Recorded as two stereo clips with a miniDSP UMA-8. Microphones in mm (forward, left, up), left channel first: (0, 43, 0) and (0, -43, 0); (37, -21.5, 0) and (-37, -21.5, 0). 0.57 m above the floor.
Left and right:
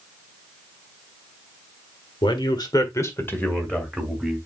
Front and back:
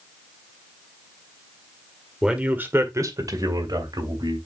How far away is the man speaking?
About 1.7 m.